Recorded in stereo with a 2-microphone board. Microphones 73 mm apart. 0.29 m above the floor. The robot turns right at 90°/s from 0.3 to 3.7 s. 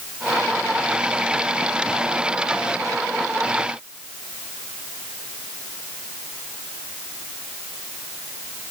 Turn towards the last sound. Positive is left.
No sound to turn to.